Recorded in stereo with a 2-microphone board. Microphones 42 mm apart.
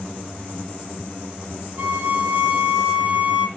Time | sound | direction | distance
1.8 | a violin | 30° right (ahead or behind) | 2 m